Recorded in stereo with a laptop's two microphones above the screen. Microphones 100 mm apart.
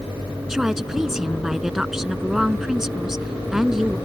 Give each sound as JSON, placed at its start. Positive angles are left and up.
{"t": 0.5, "sound": "a woman speaking", "side_deg": -5}